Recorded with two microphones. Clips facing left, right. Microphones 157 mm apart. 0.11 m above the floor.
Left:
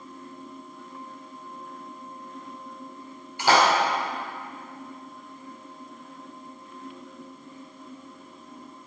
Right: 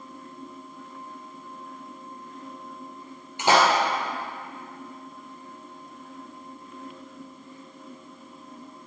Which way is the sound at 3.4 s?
20° right (ahead or behind).